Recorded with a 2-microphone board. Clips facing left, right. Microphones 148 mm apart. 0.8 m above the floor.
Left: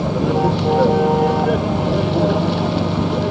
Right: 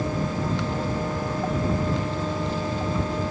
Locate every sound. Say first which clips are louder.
0.0 s a vehicle: left 10 dB; 85° left